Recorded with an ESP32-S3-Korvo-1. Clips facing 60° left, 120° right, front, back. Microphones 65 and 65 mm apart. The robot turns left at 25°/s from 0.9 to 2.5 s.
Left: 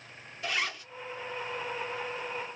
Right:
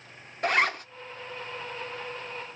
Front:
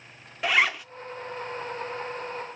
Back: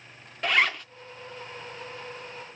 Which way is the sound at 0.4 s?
85° right.